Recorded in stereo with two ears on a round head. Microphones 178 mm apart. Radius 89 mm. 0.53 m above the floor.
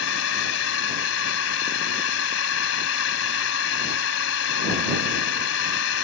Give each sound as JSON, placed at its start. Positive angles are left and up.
{"t": 0.0, "sound": "a drone", "side_deg": 75}